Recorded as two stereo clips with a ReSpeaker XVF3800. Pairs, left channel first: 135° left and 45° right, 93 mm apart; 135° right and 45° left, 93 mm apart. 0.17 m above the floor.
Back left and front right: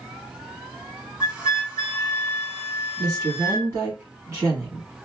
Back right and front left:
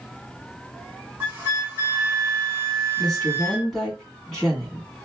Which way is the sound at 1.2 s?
20° left.